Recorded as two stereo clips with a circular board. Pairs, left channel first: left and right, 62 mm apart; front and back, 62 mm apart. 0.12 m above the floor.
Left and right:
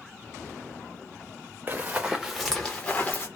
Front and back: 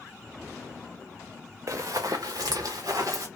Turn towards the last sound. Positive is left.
turn(degrees=150)